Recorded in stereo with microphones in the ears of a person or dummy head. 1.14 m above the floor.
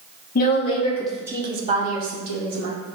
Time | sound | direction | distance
0.3 | a woman speaking | 45° left (ahead or behind) | 0.6 m